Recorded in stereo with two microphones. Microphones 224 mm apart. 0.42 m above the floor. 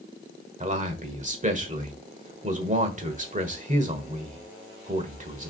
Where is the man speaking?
35° right (ahead or behind), 1.4 m.